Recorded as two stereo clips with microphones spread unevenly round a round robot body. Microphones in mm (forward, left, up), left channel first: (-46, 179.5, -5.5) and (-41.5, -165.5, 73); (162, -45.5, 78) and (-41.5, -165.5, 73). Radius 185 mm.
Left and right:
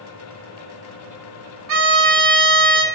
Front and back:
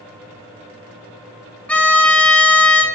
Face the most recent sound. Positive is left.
turn(degrees=-50)